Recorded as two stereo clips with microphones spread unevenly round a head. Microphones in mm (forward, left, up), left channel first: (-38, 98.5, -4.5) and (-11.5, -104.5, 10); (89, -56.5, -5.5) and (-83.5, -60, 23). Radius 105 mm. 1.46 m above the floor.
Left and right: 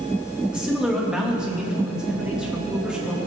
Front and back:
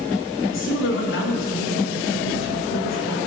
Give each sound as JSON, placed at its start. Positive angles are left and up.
{"t": 0.5, "sound": "a man speaking", "azimuth_deg": 5, "distance_m": 2.5}